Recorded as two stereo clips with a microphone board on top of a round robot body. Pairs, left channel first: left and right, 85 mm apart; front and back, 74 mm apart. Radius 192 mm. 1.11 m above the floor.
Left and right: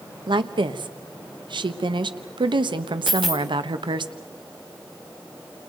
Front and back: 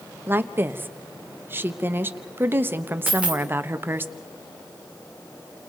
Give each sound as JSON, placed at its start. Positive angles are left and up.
{"t": 0.3, "sound": "a woman speaking", "azimuth_deg": -120, "distance_m": 1.2}
{"t": 3.1, "sound": "a dropped coin", "azimuth_deg": -110, "distance_m": 0.5}